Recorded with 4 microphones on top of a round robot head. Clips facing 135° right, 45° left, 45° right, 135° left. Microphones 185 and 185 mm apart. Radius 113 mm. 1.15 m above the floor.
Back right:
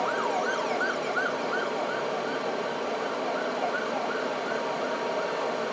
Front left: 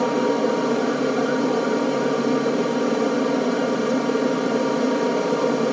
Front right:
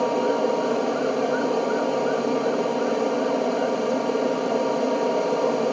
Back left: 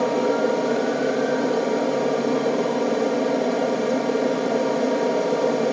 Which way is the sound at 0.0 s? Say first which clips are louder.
Front left 9 dB, back left 1 dB; 55° left.